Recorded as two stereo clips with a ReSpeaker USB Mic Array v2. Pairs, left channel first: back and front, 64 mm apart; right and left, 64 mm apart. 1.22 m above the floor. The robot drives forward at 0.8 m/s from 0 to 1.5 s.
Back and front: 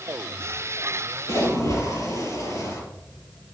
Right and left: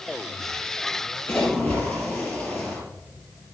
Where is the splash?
155° right, 4 m.